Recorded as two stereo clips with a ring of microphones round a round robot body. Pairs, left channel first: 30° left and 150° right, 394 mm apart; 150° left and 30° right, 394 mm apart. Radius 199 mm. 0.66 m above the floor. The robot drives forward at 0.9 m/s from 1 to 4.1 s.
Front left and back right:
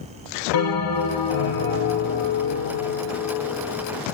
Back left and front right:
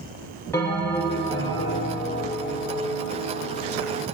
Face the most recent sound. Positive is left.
turn(degrees=100)